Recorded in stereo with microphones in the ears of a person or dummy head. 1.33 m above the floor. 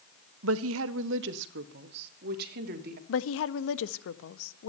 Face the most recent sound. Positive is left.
turn(degrees=80)